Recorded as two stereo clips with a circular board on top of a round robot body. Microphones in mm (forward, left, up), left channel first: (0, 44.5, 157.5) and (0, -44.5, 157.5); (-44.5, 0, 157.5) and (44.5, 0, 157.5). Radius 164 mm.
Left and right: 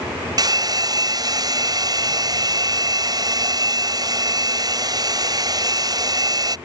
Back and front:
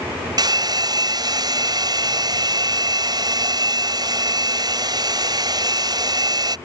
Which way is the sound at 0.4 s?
45° right.